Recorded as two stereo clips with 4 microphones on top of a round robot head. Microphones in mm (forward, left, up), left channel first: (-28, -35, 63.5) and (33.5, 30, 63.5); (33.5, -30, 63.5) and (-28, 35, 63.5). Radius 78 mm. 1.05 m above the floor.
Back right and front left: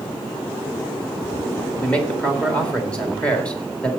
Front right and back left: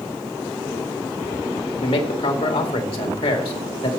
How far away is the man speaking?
About 2 m.